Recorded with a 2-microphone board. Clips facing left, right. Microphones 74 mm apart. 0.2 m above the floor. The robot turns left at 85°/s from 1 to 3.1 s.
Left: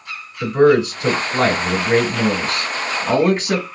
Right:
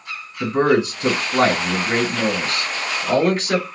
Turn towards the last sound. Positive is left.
turn(degrees=55)